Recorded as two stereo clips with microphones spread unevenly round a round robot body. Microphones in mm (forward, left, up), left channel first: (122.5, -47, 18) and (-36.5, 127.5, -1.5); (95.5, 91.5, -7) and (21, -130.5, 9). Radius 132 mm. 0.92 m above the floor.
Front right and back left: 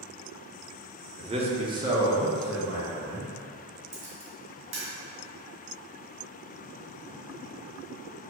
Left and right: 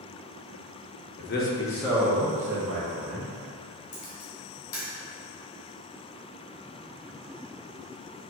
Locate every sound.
1.2 s a man speaking: 80° left, 0.8 m; by 3.3 s 130° right, 1.5 m
3.9 s a camera shutter: 95° left, 2.0 m